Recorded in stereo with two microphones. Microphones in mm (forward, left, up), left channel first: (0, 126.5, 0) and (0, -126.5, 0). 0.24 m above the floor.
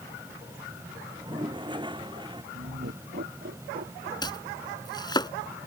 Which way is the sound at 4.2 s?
15° left (ahead or behind).